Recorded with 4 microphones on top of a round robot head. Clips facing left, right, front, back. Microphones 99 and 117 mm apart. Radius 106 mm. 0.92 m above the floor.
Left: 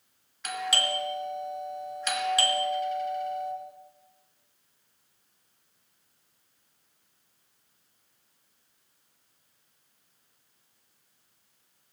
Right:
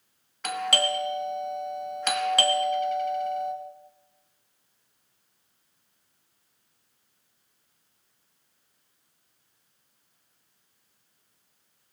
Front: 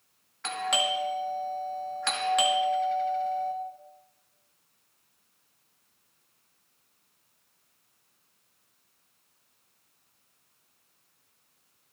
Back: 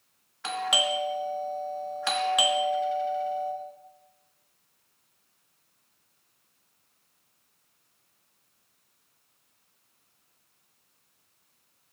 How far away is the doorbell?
About 1.6 m.